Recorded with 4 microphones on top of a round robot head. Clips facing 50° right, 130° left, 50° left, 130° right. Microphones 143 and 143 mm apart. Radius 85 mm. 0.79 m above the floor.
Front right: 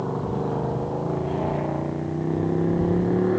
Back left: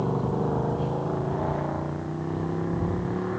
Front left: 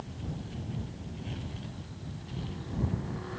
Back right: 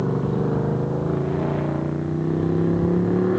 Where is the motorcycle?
140° right; by 3.4 s 100° right.